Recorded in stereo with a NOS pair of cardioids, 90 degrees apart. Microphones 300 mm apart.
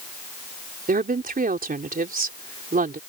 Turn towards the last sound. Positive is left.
turn(degrees=-30)